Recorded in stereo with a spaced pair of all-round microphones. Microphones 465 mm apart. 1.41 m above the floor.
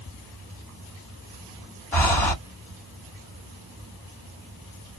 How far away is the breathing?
About 1.7 m.